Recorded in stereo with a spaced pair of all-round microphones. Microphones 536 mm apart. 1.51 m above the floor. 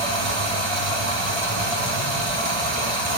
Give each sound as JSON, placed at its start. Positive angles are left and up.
{"t": 0.0, "sound": "running water", "side_deg": -80, "distance_m": 1.1}